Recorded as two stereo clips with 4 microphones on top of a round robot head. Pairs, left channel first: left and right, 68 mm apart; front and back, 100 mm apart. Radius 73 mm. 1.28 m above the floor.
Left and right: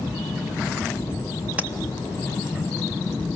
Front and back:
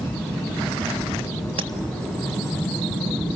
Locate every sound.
1.6 s tapping: 160° right, 1.8 m